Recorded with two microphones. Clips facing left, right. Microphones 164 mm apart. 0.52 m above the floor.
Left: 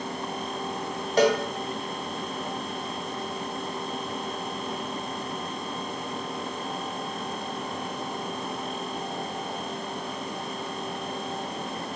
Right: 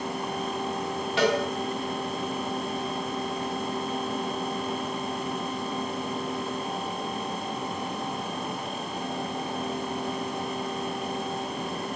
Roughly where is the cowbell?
Left.